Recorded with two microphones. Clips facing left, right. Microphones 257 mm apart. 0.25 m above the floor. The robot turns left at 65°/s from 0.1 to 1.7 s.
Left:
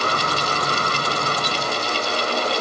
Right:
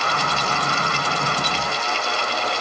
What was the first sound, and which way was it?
Only background noise.